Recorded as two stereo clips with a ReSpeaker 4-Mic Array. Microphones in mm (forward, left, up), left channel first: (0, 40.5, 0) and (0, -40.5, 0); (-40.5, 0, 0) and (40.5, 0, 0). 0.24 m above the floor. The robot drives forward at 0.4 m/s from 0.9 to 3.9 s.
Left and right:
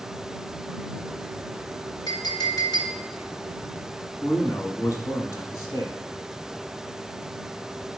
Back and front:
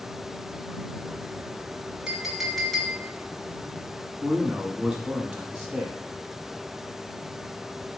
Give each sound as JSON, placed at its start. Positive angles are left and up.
{"t": 2.1, "sound": "a clink", "azimuth_deg": 80, "distance_m": 1.2}
{"t": 4.2, "sound": "a man speaking", "azimuth_deg": 85, "distance_m": 1.2}